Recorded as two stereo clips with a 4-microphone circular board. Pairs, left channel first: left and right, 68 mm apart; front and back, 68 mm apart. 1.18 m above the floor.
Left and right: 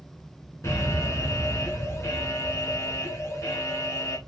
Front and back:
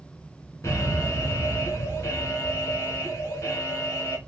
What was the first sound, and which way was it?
An alarm, 45° left.